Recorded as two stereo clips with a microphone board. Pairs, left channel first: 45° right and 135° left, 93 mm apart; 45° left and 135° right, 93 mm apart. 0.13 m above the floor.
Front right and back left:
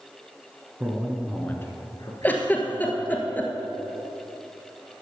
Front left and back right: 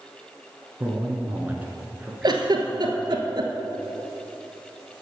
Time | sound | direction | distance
0.8 | a man speaking | 170° right | 1.3 m
2.2 | a giggle | 110° right | 1.3 m